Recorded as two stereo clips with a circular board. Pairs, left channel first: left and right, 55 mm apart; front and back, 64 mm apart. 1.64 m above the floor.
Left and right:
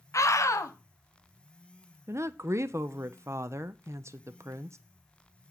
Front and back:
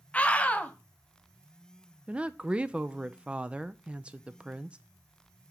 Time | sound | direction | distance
0.1 | a scream | 70° left | 1.0 m
2.1 | a woman speaking | 110° right | 0.6 m